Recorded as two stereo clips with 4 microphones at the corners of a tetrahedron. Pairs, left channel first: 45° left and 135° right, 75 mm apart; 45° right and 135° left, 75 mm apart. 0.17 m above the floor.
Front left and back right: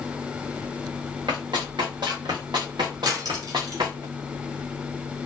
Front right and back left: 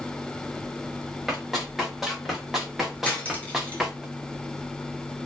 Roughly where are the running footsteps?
Behind right.